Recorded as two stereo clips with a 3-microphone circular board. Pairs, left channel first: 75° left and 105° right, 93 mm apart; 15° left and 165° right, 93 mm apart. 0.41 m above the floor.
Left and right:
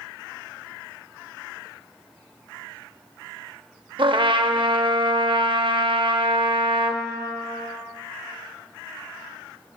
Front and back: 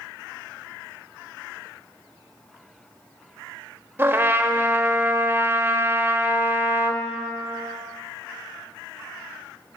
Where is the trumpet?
105° right, 0.5 m.